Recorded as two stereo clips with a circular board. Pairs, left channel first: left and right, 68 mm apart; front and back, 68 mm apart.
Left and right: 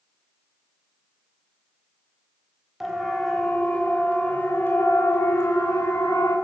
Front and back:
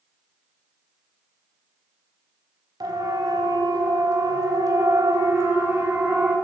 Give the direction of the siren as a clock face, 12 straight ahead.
6 o'clock.